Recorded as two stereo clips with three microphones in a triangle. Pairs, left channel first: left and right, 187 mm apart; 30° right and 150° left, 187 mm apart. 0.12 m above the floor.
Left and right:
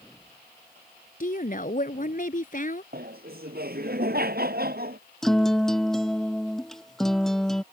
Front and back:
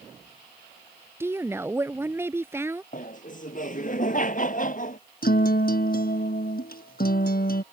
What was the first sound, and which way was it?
A woman speaking, 80° left.